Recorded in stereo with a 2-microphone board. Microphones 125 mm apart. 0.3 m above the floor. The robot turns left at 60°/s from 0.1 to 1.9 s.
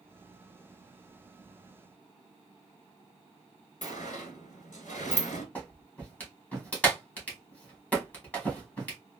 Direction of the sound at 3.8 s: 85° left.